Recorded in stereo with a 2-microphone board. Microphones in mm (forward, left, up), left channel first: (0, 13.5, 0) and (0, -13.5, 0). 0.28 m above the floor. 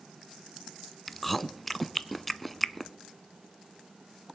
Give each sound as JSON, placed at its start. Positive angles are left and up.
{"t": 1.1, "sound": "chewing", "side_deg": 5, "distance_m": 0.5}